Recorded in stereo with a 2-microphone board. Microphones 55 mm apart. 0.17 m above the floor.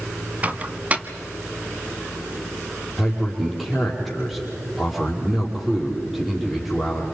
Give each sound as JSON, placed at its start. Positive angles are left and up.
{"t": 0.4, "sound": "a microwave", "side_deg": -30, "distance_m": 0.9}
{"t": 3.0, "sound": "a man speaking", "side_deg": -5, "distance_m": 5.5}